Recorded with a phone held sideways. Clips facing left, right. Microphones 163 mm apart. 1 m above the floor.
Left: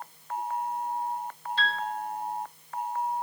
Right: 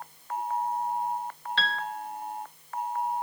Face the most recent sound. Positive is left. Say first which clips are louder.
# left 1 dB
turn(degrees=-65)  # may be behind; listen again after turning